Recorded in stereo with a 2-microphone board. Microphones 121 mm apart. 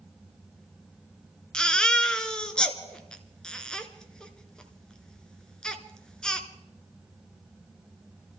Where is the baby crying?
5° left (ahead or behind), 1.0 m.